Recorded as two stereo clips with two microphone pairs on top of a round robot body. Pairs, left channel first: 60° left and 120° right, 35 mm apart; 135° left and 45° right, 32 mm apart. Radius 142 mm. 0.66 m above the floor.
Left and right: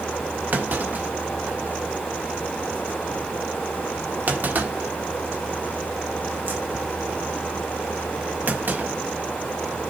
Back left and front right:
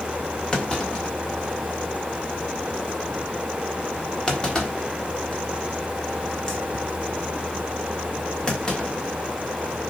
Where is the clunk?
155° right, 1.8 m.